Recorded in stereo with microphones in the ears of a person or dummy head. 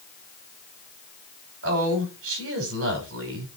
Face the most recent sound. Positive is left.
turn(degrees=-80)